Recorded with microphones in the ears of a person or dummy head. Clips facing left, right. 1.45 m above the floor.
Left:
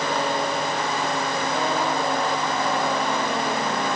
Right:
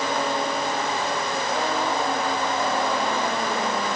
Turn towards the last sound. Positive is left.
No sound to turn to.